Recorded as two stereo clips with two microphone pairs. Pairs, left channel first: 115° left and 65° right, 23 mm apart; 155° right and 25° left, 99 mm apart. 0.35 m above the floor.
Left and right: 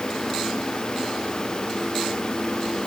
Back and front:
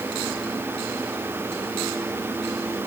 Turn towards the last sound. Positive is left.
No sound to turn to.